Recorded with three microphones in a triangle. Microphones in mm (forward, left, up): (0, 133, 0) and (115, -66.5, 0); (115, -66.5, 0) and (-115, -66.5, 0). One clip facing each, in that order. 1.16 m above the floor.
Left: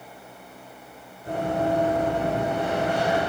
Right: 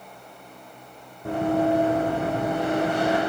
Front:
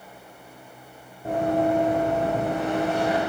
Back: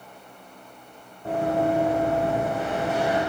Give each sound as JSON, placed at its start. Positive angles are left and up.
{"t": 1.2, "sound": "running footsteps", "azimuth_deg": -75, "distance_m": 4.0}